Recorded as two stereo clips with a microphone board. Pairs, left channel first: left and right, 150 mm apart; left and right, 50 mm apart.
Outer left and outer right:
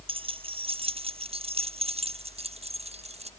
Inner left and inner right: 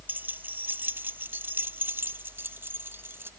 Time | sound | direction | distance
0.1 | keys jangling | 40° right (ahead or behind) | ?